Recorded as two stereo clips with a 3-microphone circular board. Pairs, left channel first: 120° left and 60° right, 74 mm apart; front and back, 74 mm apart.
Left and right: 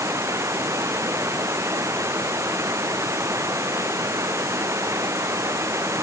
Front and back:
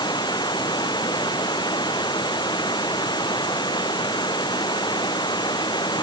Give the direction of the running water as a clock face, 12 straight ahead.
12 o'clock.